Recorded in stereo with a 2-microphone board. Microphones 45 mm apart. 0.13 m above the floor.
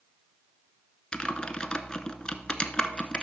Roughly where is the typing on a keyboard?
Left.